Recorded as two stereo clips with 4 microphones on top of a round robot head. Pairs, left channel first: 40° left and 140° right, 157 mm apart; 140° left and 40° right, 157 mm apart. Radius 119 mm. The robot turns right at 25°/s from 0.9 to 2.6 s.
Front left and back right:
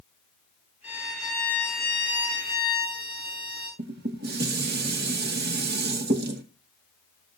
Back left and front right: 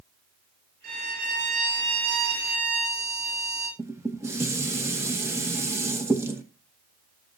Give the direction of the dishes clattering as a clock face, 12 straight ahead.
4 o'clock.